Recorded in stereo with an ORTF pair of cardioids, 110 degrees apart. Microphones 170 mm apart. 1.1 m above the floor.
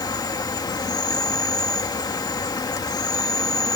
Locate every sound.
0.0 s an insect: 20° left